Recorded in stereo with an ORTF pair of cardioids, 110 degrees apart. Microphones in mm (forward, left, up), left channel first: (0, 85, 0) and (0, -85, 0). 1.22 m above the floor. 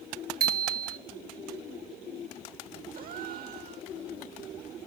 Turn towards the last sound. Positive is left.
turn(degrees=-60)